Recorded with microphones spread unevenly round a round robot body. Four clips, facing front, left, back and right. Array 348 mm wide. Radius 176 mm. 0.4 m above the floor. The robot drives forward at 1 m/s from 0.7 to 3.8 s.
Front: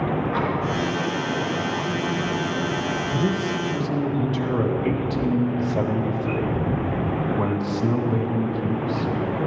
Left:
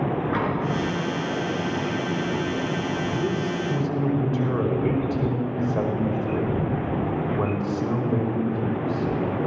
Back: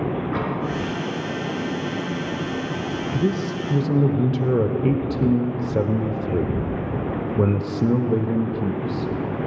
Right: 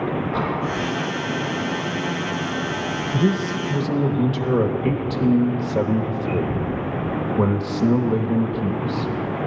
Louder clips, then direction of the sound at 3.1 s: Right 4 dB, back 2 dB; 100° right.